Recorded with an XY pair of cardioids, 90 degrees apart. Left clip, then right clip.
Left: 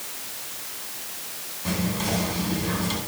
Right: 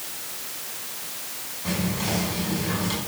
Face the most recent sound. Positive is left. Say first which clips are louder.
# even
turn(degrees=25)